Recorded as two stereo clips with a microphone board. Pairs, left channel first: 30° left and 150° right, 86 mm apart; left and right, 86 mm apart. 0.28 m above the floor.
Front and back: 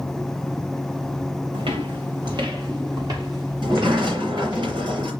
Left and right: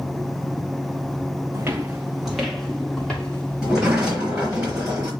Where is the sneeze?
I don't hear a sneeze.